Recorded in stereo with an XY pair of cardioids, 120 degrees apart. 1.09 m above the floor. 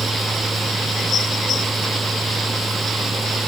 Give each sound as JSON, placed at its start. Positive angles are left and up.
{"t": 0.0, "sound": "a machine running", "azimuth_deg": -15}